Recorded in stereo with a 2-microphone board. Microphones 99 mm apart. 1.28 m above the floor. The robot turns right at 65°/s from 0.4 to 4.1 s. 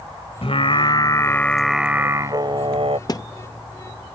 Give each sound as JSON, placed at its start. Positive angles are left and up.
{"t": 0.4, "sound": "singing", "azimuth_deg": 100}
{"t": 3.1, "sound": "a thud", "side_deg": 40}